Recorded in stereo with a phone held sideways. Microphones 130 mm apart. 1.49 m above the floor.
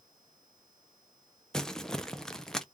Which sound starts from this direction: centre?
Crumpling, at 1.5 s.